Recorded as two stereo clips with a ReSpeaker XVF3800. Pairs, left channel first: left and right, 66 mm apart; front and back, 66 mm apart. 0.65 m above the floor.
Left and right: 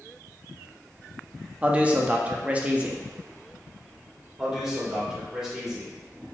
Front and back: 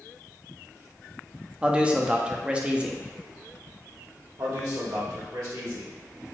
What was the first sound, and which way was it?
A man speaking, 130° right.